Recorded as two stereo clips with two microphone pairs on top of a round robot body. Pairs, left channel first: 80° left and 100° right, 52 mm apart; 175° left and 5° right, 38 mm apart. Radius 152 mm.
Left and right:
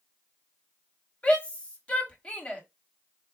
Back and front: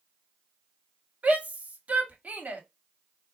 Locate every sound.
1.2 s a shout: 20° left, 1.7 m